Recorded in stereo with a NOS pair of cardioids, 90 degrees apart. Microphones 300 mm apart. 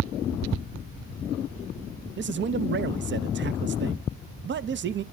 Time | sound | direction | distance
2.2 | a man speaking | 40° right | 0.6 m